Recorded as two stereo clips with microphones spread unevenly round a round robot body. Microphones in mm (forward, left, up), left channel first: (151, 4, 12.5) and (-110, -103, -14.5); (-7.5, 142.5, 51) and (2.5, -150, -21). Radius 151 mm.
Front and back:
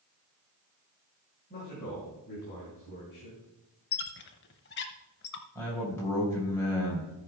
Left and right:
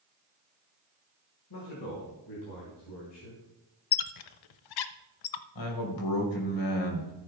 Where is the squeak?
80° left, 0.6 m.